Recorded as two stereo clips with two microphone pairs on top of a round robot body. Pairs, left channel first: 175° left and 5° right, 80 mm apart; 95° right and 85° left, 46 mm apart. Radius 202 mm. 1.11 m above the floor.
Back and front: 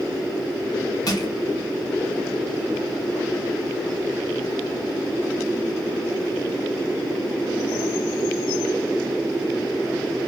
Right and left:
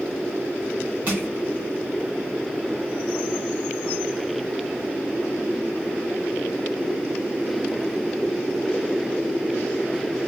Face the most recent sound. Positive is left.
turn(degrees=135)